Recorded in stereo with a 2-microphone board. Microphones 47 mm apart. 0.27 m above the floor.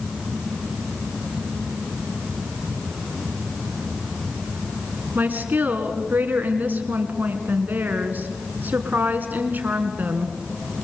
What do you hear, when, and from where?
5.2 s a woman speaking: 40° right (ahead or behind), 3 m